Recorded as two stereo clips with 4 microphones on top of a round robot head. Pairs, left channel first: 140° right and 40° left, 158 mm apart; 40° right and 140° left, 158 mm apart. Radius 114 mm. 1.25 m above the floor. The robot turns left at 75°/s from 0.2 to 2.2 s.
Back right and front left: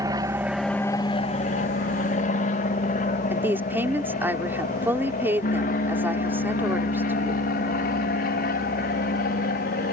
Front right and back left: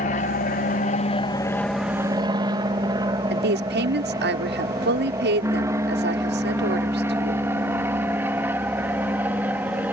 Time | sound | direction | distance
0.0 | an aircraft | 20° right | ?
3.3 | a woman speaking | 120° left | ?